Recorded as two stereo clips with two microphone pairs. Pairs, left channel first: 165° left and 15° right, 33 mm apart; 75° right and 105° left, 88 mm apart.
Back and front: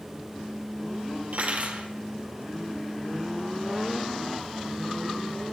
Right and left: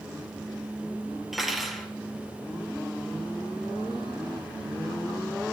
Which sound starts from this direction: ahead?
Cutlery clinking, at 1.3 s.